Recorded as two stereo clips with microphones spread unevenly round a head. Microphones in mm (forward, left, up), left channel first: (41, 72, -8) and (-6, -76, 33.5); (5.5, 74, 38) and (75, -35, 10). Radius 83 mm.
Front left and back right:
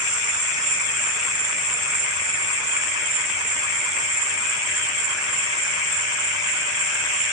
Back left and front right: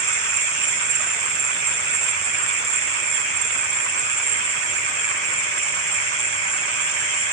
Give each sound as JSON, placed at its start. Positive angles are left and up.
{"t": 0.0, "sound": "an insect", "azimuth_deg": -90, "distance_m": 9.5}